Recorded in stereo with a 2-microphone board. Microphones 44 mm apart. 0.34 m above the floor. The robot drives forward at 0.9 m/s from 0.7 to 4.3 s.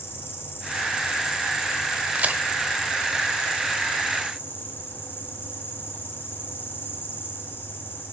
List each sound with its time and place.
0.0 s an insect: 60° left (ahead or behind), 2.5 m; by 8.1 s 45° left (ahead or behind), 3.5 m
2.1 s a crack: 35° right (ahead or behind), 0.9 m